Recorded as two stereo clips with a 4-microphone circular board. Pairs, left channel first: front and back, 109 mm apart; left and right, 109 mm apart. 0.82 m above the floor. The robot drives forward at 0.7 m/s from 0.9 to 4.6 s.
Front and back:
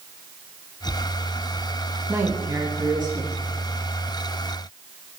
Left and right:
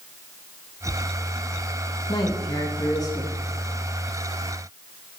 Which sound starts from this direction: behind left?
A man speaking, at 2.1 s.